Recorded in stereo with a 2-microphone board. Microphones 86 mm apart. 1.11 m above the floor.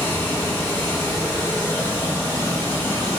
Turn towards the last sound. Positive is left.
turn(degrees=25)  # may be behind; listen again after turning